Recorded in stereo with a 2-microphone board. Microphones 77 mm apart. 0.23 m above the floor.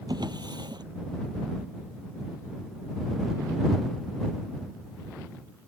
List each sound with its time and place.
0.1 s a drawer: 70° right (ahead or behind)